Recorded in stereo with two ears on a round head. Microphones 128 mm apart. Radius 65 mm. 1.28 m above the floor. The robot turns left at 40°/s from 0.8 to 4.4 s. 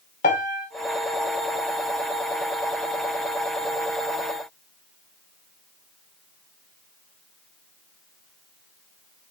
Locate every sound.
0.2 s a piano: 65° left (ahead or behind), 2.5 m